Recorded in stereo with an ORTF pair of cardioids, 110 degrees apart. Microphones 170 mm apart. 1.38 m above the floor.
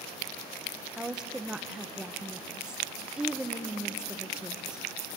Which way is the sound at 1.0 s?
5° right.